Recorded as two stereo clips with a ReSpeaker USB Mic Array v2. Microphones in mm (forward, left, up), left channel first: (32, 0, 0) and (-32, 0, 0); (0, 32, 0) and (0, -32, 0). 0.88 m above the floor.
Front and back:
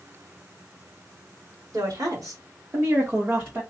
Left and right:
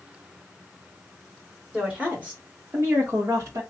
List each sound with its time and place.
1.7 s a woman speaking: 165° right, 2.0 m; by 3.6 s 120° right, 1.7 m